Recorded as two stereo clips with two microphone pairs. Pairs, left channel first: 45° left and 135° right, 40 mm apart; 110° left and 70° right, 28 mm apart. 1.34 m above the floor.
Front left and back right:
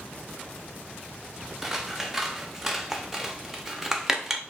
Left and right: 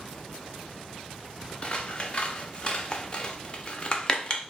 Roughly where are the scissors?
Behind left.